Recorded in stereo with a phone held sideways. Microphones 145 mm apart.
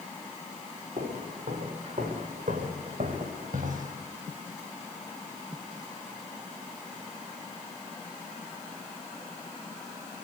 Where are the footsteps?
70° right (ahead or behind), 7 m; by 4.0 s 75° right (ahead or behind), 4.5 m.